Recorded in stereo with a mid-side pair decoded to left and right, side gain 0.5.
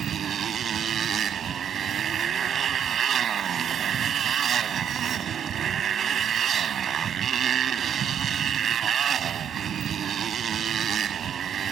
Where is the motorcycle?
50° right.